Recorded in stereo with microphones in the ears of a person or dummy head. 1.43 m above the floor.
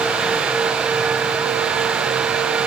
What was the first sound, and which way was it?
Only background noise.